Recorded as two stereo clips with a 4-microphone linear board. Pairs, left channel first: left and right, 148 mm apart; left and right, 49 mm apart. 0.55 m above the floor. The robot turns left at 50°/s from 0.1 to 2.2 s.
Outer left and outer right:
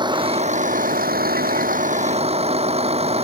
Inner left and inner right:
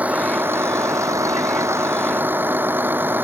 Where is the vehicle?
30° right; by 3.2 s 135° right.